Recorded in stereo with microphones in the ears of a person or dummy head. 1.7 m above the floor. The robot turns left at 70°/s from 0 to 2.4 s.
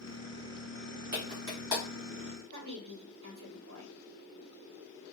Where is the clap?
50° right (ahead or behind), 2 m; by 1.8 s 10° right (ahead or behind), 2 m.